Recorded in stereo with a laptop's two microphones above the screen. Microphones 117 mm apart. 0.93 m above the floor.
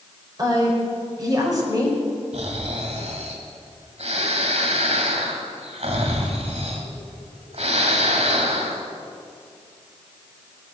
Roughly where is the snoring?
Right.